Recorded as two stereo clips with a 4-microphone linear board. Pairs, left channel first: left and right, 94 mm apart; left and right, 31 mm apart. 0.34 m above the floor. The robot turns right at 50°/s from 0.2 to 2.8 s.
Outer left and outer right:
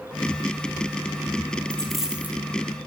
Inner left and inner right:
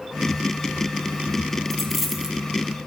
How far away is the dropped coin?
About 2.5 m.